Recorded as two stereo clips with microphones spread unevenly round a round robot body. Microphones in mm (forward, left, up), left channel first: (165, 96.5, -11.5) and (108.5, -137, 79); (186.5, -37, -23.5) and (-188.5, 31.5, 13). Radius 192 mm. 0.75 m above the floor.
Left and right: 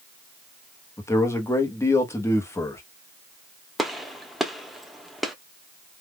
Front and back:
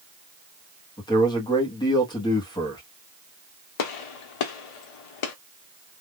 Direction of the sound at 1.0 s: 50° left.